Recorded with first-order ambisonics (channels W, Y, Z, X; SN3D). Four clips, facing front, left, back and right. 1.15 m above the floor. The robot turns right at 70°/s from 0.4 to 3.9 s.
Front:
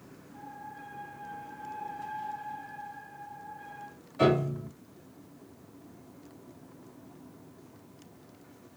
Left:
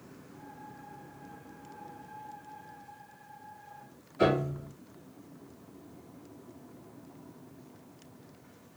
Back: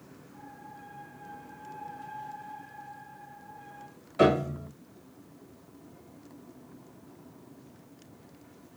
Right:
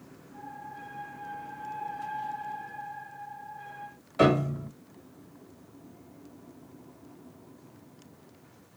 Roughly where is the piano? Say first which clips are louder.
Right 4 dB, back 2 dB; behind right.